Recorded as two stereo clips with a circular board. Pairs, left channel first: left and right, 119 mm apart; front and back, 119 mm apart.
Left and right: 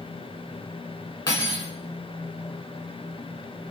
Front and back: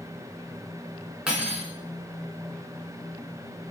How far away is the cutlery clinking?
About 0.8 m.